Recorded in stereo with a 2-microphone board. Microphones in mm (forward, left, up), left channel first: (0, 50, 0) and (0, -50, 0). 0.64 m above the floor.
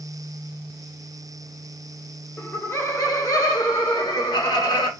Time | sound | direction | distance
2.4 | laughter | 15° left (ahead or behind) | 1.0 m